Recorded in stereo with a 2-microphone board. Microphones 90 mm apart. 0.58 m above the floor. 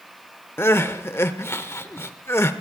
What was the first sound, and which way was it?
Crying, 25° left (ahead or behind).